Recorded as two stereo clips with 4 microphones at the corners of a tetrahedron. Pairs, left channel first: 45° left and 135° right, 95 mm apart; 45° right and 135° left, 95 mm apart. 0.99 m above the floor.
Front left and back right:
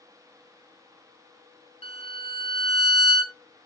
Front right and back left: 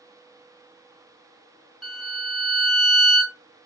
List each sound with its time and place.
1.8 s a violin: 50° left, 0.9 m